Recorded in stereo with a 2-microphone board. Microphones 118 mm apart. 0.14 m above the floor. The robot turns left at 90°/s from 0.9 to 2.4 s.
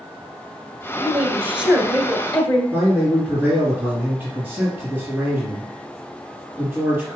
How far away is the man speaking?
About 2 m.